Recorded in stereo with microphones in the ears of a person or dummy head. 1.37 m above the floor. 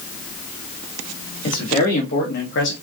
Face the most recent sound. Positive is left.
turn(degrees=70)  # may be behind; listen again after turning